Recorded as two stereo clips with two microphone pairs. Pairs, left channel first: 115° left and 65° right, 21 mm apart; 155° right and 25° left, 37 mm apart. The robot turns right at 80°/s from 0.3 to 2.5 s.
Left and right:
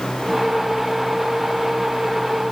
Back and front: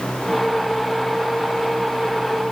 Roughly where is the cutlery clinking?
No cutlery clinking in this recording.